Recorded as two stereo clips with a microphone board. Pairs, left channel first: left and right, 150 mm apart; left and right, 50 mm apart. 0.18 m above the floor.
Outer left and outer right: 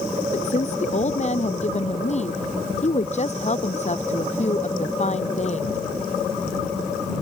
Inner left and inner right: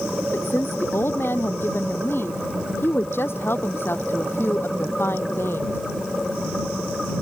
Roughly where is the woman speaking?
Left.